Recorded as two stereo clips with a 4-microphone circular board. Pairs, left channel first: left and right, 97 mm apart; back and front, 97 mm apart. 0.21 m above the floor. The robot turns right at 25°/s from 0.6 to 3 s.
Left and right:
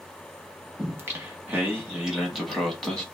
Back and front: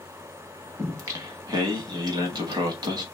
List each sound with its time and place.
0.8 s singing: 40° right, 0.9 m; by 3.0 s 15° left, 0.9 m